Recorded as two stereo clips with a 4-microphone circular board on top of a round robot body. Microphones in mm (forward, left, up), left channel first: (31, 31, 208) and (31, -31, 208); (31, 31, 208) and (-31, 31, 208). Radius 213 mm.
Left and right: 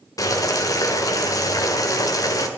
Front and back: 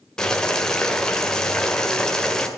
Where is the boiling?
80° left, 1.8 m.